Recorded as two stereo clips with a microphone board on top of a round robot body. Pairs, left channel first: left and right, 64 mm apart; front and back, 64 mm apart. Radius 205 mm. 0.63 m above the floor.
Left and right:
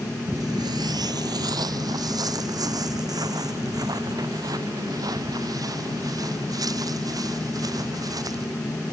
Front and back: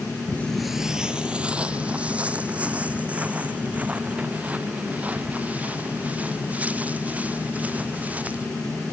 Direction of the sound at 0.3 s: 30° right.